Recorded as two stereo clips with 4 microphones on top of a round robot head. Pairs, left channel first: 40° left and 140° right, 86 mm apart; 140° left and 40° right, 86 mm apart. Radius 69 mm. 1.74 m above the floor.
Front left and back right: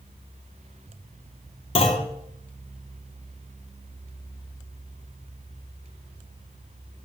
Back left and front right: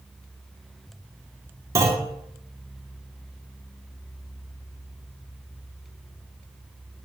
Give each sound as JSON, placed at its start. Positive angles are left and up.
{"t": 1.8, "sound": "a clunk", "azimuth_deg": 15, "distance_m": 1.1}